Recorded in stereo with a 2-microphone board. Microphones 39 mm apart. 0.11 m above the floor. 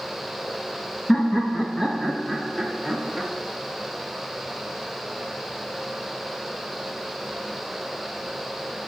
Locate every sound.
1.1 s laughter: 25° left (ahead or behind), 1.3 m; by 3.3 s centre (ahead or behind), 1.4 m